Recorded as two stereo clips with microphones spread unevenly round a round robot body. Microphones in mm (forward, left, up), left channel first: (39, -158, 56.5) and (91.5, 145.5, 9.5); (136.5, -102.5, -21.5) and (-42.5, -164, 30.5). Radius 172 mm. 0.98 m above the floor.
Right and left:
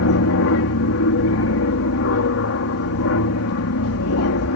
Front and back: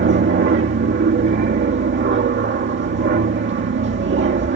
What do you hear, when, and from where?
0.0 s an aircraft: 145° right